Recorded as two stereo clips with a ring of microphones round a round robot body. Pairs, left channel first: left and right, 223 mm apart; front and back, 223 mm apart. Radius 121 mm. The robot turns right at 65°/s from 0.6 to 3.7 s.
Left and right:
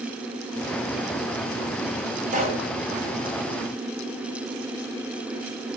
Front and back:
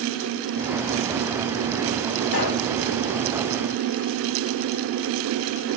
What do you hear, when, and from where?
2.3 s a pop: 35° right, 5.5 m; by 2.7 s 15° right, 5.5 m